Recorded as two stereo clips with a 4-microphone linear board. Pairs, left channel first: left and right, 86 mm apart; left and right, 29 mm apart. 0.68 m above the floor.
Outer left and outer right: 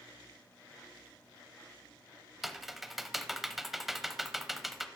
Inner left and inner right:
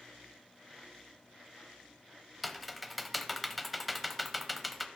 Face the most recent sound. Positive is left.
turn(degrees=-5)  # may be behind; listen again after turning